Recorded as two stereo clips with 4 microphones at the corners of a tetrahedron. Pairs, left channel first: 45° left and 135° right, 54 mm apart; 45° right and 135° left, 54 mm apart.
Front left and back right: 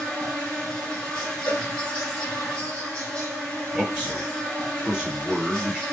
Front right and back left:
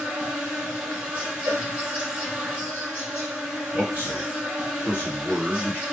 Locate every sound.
0.0 s an insect: 100° left, 1.8 m
1.5 s a cowbell: 110° left, 0.7 m
3.7 s a man speaking: 155° left, 1.9 m